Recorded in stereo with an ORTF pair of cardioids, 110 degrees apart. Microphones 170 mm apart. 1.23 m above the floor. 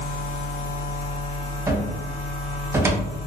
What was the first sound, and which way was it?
A machine running, 65° left.